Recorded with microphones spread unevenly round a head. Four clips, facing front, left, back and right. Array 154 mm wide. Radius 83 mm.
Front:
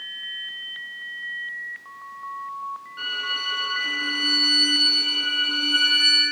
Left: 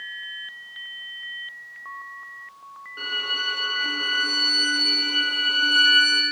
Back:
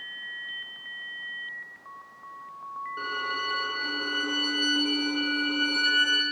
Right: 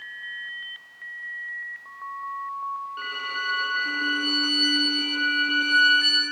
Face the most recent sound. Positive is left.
turn(degrees=160)